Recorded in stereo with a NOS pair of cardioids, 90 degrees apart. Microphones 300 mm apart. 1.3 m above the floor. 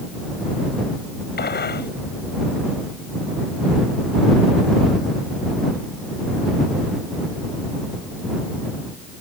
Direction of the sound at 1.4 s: 35° left.